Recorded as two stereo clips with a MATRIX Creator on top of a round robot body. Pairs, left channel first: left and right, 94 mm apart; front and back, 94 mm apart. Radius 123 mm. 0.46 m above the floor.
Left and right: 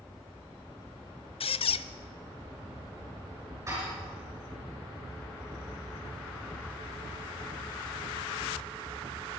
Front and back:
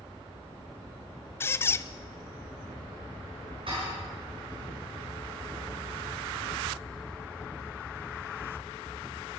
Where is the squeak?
65° left, 0.6 m.